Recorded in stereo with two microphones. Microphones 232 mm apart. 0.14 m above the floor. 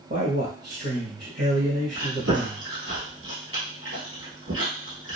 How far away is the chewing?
About 1.4 m.